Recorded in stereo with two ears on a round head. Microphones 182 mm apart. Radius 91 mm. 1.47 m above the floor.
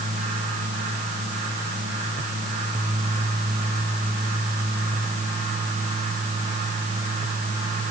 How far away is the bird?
No bird in this recording.